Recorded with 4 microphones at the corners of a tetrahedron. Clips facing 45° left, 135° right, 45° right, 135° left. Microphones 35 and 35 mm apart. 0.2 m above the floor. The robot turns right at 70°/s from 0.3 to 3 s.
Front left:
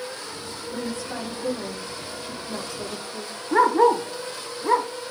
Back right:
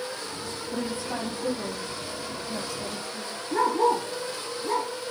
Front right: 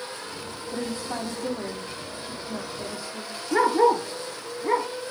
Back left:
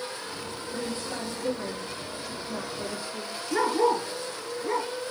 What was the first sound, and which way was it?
A woman speaking, 85° right.